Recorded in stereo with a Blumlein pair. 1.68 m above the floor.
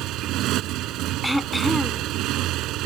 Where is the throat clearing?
Straight ahead.